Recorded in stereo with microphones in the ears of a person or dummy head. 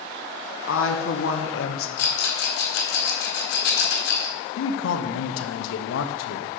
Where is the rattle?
60° left (ahead or behind), 1.8 m.